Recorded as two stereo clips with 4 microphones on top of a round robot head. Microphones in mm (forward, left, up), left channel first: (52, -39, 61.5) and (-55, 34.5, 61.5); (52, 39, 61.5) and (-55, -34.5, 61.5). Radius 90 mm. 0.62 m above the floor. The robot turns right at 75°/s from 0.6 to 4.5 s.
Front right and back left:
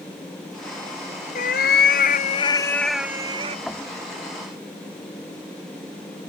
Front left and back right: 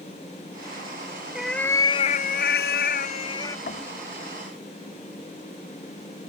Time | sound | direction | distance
1.4 | a cat meowing | 65° right | ?
3.7 | knocking | 50° left | ?